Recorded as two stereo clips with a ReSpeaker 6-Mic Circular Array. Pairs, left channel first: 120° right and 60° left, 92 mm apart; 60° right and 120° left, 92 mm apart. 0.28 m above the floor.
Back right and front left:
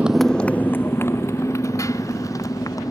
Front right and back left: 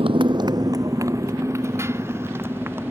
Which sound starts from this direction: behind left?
A motorcycle, at 0.0 s.